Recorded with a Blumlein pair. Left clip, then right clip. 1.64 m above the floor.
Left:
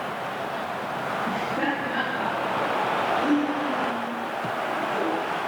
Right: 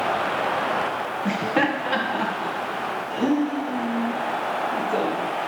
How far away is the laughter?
About 1.4 m.